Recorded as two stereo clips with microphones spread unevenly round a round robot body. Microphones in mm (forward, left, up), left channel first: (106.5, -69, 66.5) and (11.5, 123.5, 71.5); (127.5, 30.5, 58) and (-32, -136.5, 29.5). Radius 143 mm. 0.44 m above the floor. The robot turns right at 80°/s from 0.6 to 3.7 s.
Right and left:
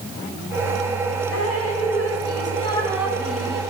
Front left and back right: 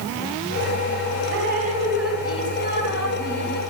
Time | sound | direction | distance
1.3 | dripping | 105° right | 3.5 m